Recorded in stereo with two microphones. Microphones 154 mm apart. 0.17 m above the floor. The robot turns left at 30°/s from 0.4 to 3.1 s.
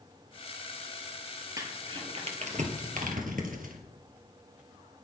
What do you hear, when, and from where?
1.6 s crumpling: 20° right (ahead or behind), 2 m; by 3.8 s 65° right (ahead or behind), 2 m